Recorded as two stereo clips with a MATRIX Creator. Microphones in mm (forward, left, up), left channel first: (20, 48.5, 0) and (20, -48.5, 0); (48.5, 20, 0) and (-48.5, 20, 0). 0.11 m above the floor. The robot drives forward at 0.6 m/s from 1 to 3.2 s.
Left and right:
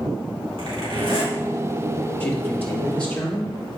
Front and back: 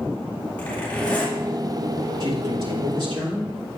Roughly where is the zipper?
Right.